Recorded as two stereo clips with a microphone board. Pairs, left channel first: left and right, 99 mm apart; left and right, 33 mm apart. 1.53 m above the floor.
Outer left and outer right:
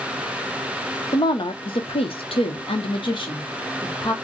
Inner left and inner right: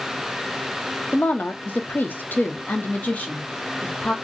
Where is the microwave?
I don't hear a microwave.